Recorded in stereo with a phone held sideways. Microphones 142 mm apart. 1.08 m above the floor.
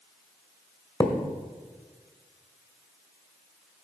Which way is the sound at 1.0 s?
25° left (ahead or behind).